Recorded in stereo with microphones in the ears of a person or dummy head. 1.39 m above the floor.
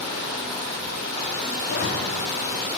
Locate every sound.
1.6 s a zipper: 60° left (ahead or behind), 2.5 m